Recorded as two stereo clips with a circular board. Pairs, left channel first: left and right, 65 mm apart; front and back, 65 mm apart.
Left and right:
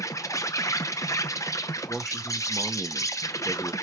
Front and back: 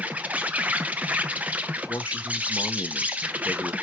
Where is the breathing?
I don't hear breathing.